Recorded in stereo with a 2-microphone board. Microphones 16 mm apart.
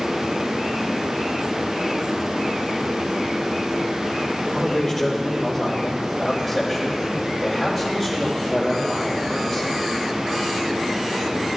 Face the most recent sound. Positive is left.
turn(degrees=-5)  # may be behind; listen again after turning